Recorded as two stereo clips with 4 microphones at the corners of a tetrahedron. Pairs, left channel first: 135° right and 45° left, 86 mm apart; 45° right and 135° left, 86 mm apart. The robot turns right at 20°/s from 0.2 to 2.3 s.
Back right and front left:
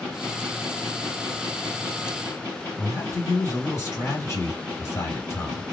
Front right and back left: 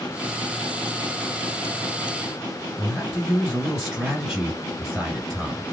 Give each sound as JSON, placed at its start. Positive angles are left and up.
{"t": 2.8, "sound": "a man speaking", "azimuth_deg": -150, "distance_m": 1.8}